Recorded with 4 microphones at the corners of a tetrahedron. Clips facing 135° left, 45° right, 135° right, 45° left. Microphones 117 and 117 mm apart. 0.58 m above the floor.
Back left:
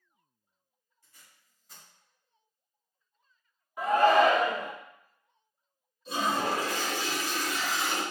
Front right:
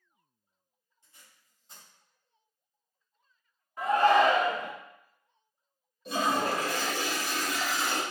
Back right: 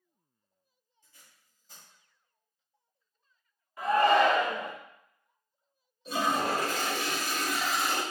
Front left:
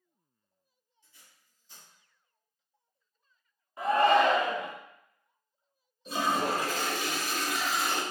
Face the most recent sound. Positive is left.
turn(degrees=-50)